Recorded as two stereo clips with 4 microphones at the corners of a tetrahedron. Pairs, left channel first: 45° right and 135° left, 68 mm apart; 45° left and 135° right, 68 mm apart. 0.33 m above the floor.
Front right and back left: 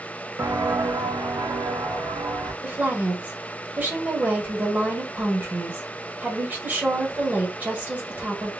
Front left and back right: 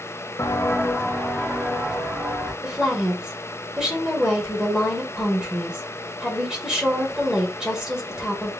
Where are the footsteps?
85° left, 0.7 m; by 2.5 s 150° left, 2.5 m.